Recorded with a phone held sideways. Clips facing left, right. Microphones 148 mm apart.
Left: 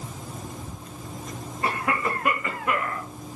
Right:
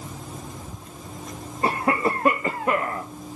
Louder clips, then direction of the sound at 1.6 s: Right 4 dB; 35° right (ahead or behind).